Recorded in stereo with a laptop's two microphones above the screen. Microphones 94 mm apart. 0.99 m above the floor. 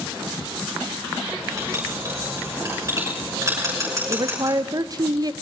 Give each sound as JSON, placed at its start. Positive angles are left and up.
{"t": 1.3, "sound": "writing", "side_deg": -35, "distance_m": 6.0}
{"t": 4.1, "sound": "a woman speaking", "side_deg": -40, "distance_m": 0.6}